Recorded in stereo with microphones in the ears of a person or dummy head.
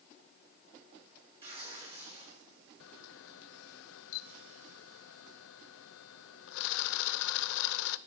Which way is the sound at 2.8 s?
75° left (ahead or behind).